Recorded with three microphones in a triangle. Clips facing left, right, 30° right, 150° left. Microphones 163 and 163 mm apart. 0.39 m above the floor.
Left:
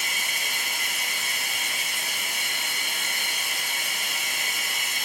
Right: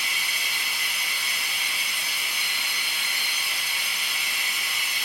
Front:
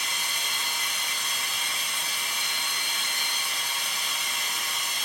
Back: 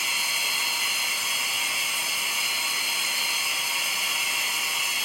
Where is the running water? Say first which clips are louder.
Left 1 dB, back 1 dB; 70° left, 0.8 m.